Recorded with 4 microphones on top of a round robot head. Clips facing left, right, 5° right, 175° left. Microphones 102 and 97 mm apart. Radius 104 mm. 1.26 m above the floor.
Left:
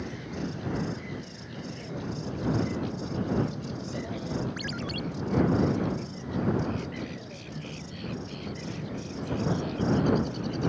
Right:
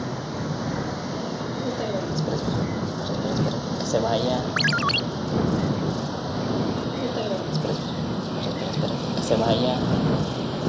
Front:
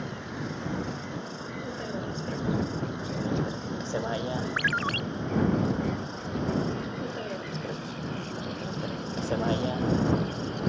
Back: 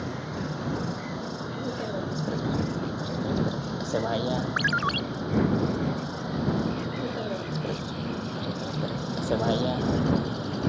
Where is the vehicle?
105° right; by 10.7 s 100° right.